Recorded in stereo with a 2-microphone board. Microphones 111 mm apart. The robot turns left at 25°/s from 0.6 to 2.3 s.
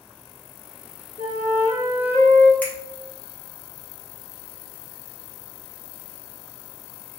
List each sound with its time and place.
1.2 s a flute: 80° left, 0.7 m; by 2.5 s 55° left (ahead or behind), 0.7 m
2.6 s a finger snap: 15° left (ahead or behind), 1.0 m